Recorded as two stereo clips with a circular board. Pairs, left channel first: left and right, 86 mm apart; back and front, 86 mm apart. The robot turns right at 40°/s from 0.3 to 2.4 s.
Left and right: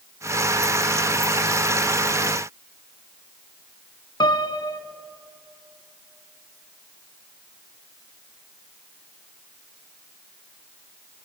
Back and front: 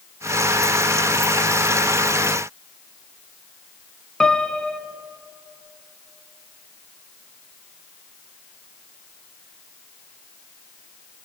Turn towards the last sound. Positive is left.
turn(degrees=100)